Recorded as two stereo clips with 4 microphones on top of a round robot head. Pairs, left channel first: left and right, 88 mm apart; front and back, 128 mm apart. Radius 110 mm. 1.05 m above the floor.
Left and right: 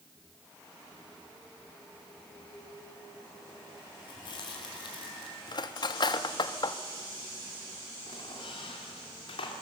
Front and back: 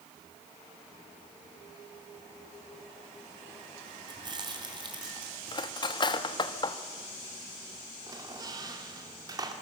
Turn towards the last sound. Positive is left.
turn(degrees=125)